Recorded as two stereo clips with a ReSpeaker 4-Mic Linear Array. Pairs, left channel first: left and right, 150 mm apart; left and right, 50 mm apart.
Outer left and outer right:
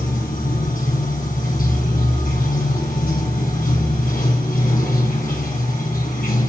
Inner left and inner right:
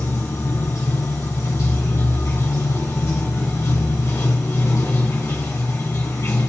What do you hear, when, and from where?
0.0 s running water: 70° left (ahead or behind), 2.5 m